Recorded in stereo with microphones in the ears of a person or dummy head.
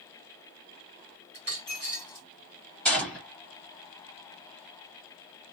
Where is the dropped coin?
10° right (ahead or behind), 1.4 m.